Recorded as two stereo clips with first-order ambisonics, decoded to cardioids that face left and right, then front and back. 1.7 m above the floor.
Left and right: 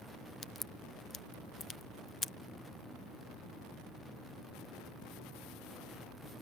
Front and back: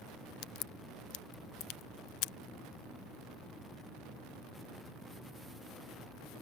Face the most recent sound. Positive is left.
turn(degrees=15)